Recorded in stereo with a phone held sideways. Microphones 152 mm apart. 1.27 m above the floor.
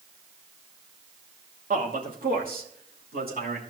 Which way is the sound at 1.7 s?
65° right (ahead or behind).